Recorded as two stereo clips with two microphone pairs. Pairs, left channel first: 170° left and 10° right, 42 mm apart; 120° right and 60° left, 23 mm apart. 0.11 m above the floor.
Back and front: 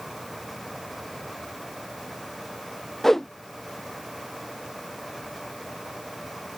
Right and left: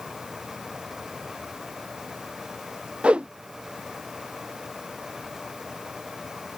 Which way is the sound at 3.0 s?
90° left.